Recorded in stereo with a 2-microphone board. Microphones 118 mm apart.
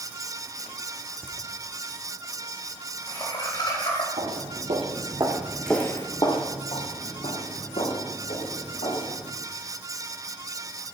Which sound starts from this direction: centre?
Laughter, at 1.2 s.